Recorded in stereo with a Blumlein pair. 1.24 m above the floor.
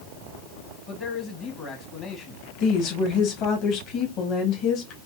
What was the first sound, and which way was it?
A man speaking, 30° left.